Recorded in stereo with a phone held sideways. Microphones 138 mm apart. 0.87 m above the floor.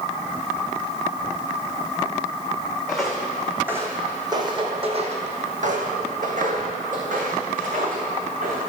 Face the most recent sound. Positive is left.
turn(degrees=-60)  # may be behind; listen again after turning